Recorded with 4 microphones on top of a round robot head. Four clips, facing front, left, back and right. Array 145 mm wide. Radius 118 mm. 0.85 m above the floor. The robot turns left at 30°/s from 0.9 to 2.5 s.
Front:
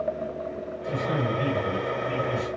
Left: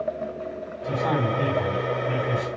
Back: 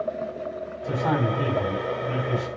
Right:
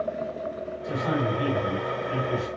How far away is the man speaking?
About 8.5 m.